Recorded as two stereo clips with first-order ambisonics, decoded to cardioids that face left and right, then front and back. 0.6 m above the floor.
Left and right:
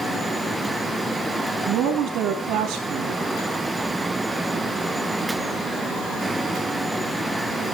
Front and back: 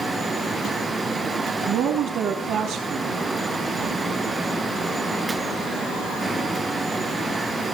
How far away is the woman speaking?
About 4 m.